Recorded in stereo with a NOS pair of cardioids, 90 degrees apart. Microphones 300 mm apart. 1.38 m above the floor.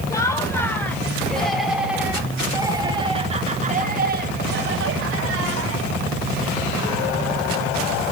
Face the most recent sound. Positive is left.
turn(degrees=-60)